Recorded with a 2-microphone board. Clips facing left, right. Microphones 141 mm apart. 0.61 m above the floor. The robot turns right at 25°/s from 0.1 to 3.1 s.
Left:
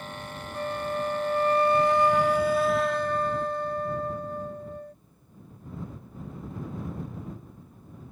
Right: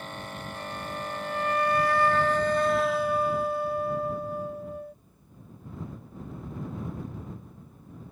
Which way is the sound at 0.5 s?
125° left.